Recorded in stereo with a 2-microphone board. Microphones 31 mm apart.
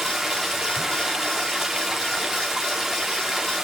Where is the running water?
10° right (ahead or behind), 2.5 m.